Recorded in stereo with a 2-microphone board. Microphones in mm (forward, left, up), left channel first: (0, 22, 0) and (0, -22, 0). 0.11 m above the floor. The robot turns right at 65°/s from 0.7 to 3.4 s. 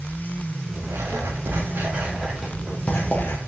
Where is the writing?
100° right, 4 m; by 3.4 s 65° left, 4 m.